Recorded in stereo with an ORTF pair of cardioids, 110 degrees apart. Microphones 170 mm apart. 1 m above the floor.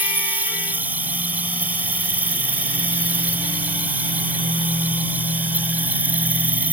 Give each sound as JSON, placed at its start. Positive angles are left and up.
{"t": 0.0, "sound": "an insect", "azimuth_deg": -10}